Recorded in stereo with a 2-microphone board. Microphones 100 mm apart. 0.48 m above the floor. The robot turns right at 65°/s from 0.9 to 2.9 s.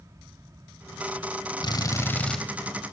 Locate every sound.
1.6 s a drill: 125° left, 3 m; by 2.4 s 175° left, 3 m